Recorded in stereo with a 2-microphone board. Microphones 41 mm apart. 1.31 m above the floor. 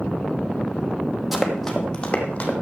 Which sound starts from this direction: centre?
Running footsteps, at 1.3 s.